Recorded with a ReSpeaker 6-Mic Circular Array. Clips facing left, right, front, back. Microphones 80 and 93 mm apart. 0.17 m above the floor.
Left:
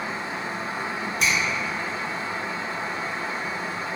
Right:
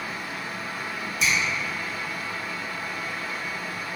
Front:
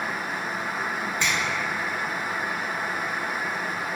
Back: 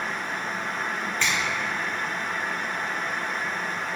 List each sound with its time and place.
1.2 s a finger snap: 70° left, 1.9 m